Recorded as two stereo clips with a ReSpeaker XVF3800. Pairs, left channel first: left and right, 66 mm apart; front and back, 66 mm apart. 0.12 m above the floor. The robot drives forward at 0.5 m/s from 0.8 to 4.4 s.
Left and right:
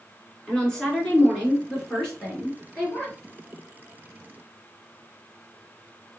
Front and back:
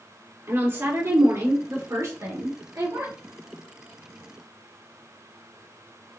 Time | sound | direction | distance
0.5 | a woman speaking | 165° left | 1.9 m